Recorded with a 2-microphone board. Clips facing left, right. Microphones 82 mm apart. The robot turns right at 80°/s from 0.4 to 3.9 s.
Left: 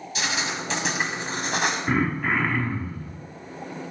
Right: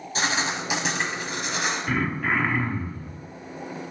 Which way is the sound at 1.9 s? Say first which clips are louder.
Left 1 dB; 145° left.